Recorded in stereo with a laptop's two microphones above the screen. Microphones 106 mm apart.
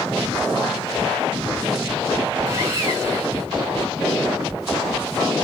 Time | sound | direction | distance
2.5 | sawing | 30° right (ahead or behind) | 1.2 m